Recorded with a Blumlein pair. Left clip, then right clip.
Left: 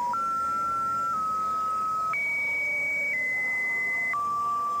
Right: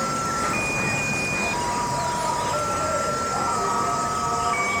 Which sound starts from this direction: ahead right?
An insect, at 0.0 s.